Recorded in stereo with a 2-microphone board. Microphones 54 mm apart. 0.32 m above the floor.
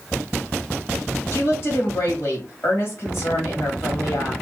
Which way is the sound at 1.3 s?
50° left (ahead or behind).